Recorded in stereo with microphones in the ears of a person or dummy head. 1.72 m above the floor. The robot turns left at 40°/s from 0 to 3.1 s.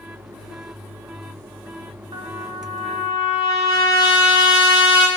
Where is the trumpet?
155° right, 2.5 m; by 5.1 s 165° left, 2.5 m.